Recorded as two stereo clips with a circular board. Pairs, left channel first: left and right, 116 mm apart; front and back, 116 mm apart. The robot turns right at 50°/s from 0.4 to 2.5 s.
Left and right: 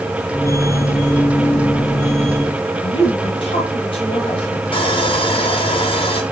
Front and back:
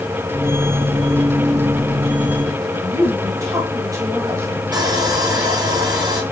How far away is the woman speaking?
About 2 m.